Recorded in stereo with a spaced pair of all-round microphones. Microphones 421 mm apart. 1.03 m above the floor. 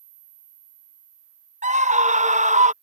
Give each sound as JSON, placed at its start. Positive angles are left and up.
{"t": 1.6, "sound": "a scream", "side_deg": -20}